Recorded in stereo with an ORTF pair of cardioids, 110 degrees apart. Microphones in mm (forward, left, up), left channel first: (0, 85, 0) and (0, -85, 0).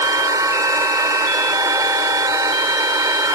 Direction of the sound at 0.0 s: 20° right.